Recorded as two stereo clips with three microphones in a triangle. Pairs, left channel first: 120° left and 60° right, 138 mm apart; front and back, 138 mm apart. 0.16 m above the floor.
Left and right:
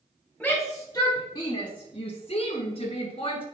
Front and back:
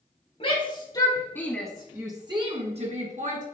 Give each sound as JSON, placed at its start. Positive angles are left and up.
{"t": 0.4, "sound": "a shout", "azimuth_deg": 35, "distance_m": 2.5}